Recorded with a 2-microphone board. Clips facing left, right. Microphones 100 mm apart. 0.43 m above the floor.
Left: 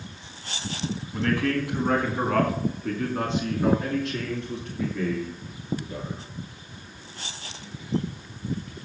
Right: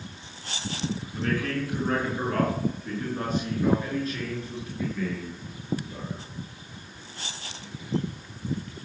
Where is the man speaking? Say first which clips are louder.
Left 5 dB; 70° left (ahead or behind), 3.5 m; by 6.2 s 75° left (ahead or behind), 7 m.